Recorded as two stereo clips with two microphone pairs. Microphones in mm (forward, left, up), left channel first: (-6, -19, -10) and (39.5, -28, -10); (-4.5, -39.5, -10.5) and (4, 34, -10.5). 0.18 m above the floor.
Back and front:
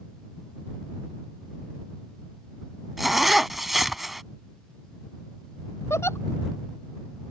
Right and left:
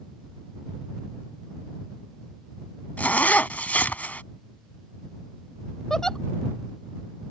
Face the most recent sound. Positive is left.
turn(degrees=180)